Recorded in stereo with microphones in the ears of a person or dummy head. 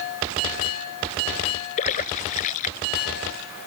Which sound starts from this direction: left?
A splash, at 1.8 s.